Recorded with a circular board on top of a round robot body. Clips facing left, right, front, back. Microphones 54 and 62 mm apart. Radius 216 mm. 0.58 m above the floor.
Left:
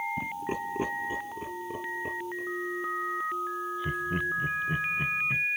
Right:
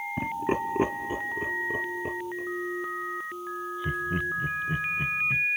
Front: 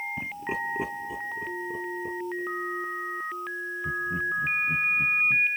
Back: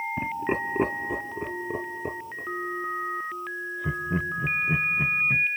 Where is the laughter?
125° right; by 5.5 s 170° left.